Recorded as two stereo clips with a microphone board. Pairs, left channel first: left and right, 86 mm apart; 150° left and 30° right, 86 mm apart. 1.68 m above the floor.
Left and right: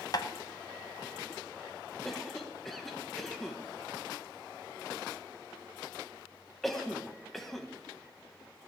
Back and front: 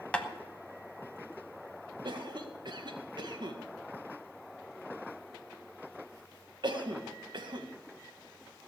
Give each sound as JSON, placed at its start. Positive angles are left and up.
{"t": 0.1, "sound": "tapping", "azimuth_deg": 80, "distance_m": 1.0}
{"t": 2.0, "sound": "a cough", "azimuth_deg": 0, "distance_m": 1.9}